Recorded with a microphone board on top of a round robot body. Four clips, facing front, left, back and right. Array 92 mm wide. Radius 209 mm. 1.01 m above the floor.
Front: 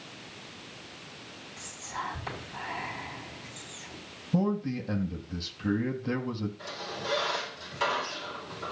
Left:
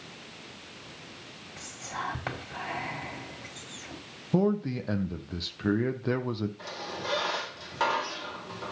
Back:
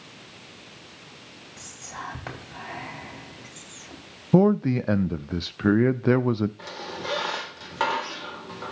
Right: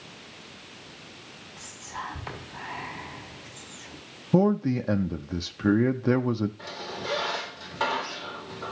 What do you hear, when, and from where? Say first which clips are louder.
1.6 s whispering: left 1 dB, front 1 dB; 120° left, 5.5 m
4.3 s a man speaking: right 4 dB, back 9 dB; 165° right, 0.5 m
6.6 s a squeak: right 1 dB, back 3 dB; 175° left, 3 m